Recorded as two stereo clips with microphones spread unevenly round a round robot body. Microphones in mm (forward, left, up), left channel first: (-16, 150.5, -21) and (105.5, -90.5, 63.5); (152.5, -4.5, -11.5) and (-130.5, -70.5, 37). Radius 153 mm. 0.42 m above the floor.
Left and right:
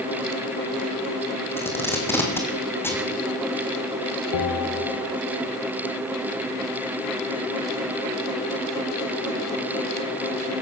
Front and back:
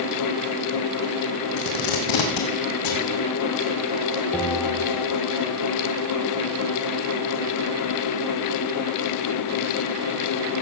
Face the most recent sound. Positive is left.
turn(degrees=100)